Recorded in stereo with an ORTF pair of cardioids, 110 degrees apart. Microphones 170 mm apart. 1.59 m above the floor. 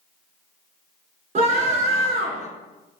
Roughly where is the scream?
Ahead right.